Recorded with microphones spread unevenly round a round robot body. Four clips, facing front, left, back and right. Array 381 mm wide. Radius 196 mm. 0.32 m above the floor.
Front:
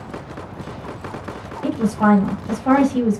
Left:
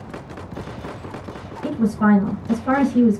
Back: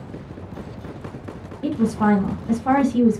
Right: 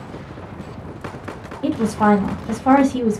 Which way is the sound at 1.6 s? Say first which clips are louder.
Right 2 dB, front 2 dB; 125° right.